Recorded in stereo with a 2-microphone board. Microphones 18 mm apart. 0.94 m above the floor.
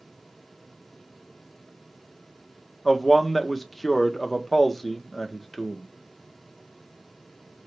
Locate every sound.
2.9 s a man speaking: 5° left (ahead or behind), 0.7 m